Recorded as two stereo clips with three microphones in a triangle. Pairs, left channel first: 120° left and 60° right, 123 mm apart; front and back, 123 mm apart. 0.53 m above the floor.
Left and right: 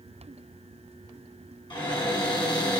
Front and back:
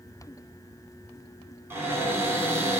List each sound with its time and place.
1.7 s a cupboard door: 120° left, 1.0 m